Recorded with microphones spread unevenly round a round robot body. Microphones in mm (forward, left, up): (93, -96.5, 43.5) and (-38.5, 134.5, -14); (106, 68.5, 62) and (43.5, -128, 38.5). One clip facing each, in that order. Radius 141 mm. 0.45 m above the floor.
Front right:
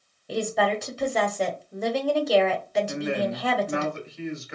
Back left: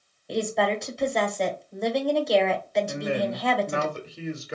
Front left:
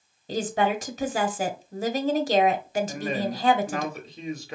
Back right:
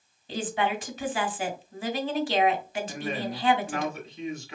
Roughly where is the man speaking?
Behind left.